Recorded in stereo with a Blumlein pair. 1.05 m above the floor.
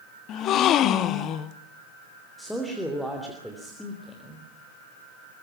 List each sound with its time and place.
0.3 s a gasp: 35° left, 0.9 m
2.4 s a man speaking: 5° left, 3 m